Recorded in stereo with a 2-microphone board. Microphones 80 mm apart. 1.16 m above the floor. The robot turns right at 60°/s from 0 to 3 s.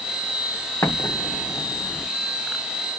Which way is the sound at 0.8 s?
35° left (ahead or behind).